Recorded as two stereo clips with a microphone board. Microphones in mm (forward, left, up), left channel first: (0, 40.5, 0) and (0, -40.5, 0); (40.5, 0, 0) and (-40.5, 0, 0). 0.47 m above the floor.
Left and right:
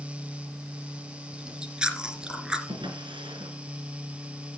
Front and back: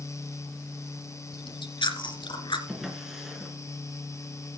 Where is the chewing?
10° right, 2.5 m.